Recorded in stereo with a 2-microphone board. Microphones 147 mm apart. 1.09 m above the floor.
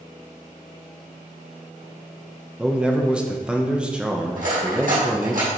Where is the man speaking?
5° right (ahead or behind), 1.1 m.